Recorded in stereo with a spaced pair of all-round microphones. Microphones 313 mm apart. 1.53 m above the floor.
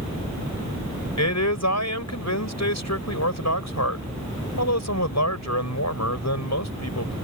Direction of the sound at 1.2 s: 60° left (ahead or behind).